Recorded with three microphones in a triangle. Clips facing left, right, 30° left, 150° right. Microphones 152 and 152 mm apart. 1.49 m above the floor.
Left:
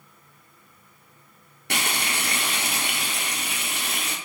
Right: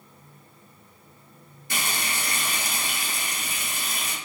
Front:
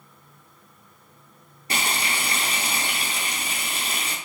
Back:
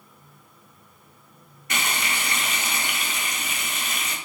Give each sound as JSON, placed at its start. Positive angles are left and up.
{"t": 1.7, "sound": "frying", "azimuth_deg": 85, "distance_m": 0.7}